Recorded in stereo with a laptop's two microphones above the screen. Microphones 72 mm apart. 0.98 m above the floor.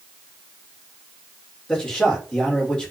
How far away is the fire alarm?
I don't hear a fire alarm.